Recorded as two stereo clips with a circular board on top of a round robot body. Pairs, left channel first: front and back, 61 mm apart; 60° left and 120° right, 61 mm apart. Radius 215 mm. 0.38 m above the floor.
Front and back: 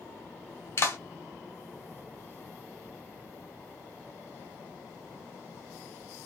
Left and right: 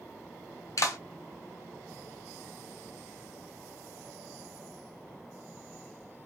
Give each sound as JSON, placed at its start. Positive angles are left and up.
{"t": 0.8, "sound": "a clap", "azimuth_deg": 40, "distance_m": 1.6}